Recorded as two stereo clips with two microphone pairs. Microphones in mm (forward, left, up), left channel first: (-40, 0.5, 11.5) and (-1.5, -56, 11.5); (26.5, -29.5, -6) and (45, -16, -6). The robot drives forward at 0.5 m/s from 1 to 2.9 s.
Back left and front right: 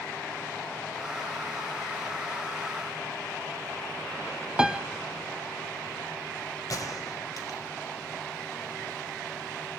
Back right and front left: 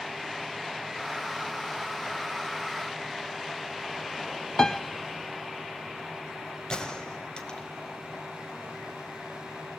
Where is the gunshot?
160° left, 2 m.